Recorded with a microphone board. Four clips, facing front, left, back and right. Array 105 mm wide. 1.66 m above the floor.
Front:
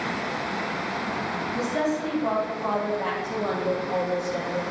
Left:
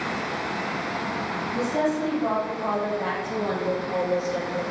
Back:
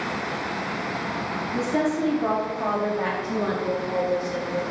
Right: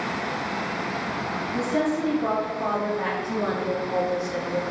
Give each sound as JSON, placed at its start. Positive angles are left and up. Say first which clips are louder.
{"t": 1.5, "sound": "a woman speaking", "louder": "even, back 3 dB", "azimuth_deg": -160, "distance_m": 4.0}